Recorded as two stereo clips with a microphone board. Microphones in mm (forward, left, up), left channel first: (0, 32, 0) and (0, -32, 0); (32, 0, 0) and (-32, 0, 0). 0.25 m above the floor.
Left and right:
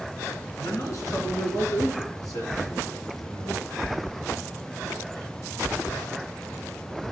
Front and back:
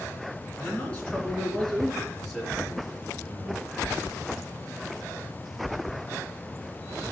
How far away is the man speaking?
About 3 m.